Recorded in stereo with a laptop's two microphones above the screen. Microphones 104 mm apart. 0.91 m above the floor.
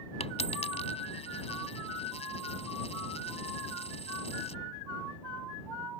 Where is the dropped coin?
80° left.